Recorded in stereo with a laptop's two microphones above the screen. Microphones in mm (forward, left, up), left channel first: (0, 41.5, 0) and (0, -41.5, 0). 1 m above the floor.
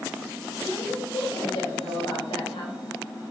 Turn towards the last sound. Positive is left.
turn(degrees=80)